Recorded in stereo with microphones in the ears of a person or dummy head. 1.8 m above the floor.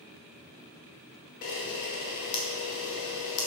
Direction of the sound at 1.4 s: 50° left (ahead or behind).